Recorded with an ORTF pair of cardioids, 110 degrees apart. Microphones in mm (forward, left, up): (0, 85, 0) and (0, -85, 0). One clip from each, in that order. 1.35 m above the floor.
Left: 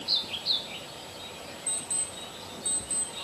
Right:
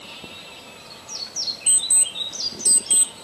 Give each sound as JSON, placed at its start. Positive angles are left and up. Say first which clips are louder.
{"t": 1.7, "sound": "an alarm clock", "louder": "right 12 dB", "azimuth_deg": -60, "distance_m": 1.4}